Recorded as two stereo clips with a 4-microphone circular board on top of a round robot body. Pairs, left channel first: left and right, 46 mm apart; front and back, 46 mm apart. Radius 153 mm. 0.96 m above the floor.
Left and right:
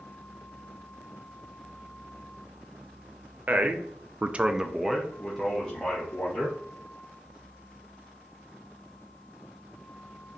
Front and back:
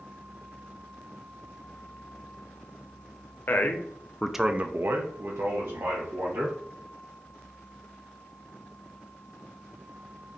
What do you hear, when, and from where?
3.5 s a man speaking: 35° right, 0.8 m; by 6.5 s 165° left, 1.5 m